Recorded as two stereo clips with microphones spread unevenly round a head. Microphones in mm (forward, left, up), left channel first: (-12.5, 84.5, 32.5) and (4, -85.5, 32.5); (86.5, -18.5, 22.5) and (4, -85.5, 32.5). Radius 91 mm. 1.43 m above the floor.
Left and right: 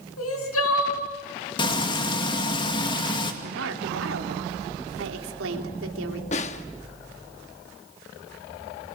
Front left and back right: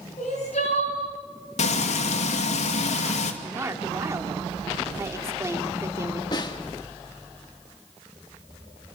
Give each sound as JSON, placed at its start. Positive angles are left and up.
{"t": 0.2, "sound": "crying", "azimuth_deg": 95, "distance_m": 4.5}
{"t": 1.6, "sound": "frying", "azimuth_deg": 30, "distance_m": 2.0}
{"t": 3.4, "sound": "a woman speaking", "azimuth_deg": -80, "distance_m": 3.0}
{"t": 6.3, "sound": "a snare drum", "azimuth_deg": 80, "distance_m": 1.0}